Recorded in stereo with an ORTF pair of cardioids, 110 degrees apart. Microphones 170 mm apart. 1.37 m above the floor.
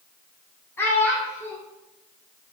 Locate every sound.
0.8 s a child speaking: 15° left, 0.8 m